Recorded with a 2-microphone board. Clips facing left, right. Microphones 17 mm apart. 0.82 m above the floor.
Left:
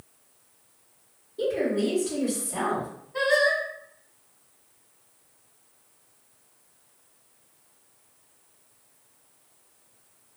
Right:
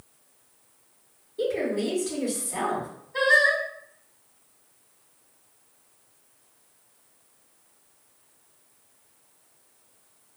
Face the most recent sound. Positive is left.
turn(degrees=-20)  # may be behind; listen again after turning